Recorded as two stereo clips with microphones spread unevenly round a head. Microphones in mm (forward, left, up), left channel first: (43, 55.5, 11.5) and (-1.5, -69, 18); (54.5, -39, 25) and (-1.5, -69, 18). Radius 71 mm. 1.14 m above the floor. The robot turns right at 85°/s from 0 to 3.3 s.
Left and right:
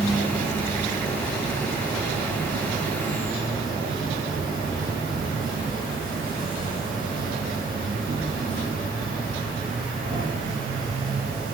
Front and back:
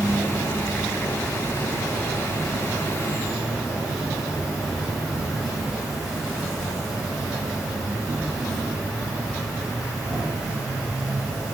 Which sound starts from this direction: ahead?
An insect, at 0.0 s.